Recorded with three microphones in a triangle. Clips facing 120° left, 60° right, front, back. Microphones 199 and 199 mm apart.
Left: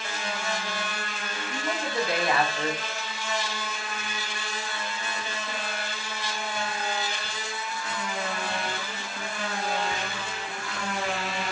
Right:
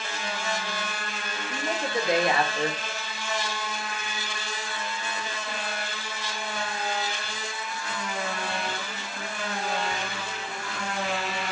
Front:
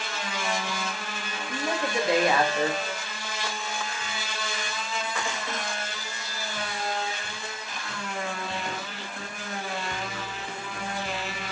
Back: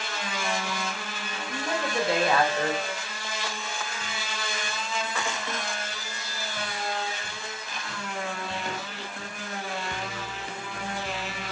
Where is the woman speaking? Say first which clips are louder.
Right 2 dB, front 1 dB; 40° right, 0.8 m.